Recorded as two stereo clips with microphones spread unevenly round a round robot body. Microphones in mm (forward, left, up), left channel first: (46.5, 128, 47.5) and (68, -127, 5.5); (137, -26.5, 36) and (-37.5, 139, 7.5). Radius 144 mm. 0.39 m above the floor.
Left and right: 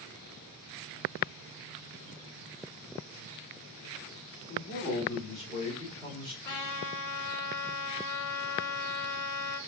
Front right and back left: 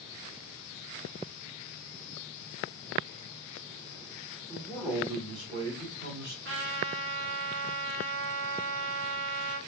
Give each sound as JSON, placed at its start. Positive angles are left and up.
{"t": 4.5, "sound": "a man speaking", "azimuth_deg": 45, "distance_m": 1.5}
{"t": 6.5, "sound": "a trumpet", "azimuth_deg": 95, "distance_m": 1.5}